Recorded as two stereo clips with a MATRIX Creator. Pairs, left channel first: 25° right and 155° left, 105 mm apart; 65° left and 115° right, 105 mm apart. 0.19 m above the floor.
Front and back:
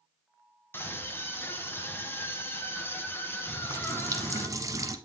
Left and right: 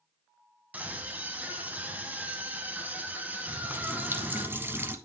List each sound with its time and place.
0.7 s a scream: 55° right, 1.2 m
3.5 s a running tap: 170° right, 0.8 m